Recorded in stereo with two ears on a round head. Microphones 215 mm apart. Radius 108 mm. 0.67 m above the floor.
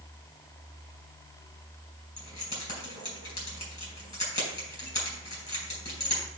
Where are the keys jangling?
15° left (ahead or behind), 3.5 m.